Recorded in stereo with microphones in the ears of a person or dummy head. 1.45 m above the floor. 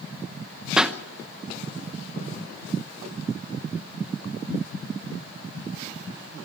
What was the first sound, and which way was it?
A pop, 5° right (ahead or behind).